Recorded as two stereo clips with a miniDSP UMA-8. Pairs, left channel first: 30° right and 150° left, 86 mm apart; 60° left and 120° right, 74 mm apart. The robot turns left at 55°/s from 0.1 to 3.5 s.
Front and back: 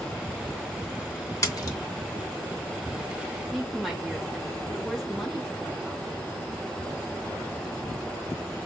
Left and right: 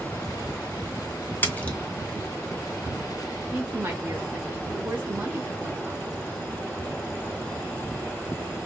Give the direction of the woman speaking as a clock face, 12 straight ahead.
4 o'clock.